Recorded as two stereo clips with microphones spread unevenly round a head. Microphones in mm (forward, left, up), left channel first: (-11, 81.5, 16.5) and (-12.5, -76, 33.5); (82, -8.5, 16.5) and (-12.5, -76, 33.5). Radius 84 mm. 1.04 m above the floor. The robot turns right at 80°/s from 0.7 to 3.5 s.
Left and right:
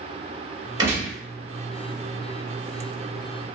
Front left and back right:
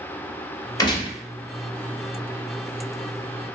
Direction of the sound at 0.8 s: 25° right.